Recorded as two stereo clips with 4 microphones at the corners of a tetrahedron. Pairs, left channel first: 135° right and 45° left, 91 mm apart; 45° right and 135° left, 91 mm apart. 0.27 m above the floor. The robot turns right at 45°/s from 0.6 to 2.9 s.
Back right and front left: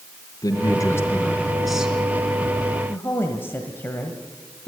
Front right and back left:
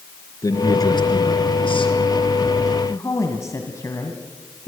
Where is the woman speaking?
85° right, 1.7 m; by 4.7 s 80° right, 1.7 m.